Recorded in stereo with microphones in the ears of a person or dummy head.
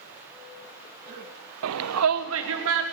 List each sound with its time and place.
1.6 s a shout: 75° right (ahead or behind), 0.8 m; by 2.8 s 65° right (ahead or behind), 2.5 m